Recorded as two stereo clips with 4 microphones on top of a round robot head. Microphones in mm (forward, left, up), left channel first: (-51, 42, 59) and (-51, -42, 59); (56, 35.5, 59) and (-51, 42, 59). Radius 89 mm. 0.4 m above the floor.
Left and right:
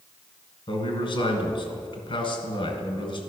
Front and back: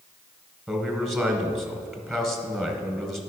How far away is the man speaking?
About 2 m.